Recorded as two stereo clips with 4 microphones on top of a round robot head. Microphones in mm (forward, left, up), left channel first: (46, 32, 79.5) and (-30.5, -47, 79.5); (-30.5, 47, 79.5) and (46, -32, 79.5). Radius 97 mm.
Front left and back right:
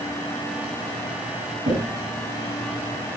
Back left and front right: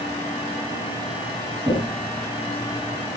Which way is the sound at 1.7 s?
130° right.